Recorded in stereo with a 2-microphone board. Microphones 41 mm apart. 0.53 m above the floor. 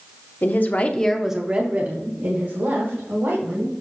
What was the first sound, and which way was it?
A woman speaking, 55° left (ahead or behind).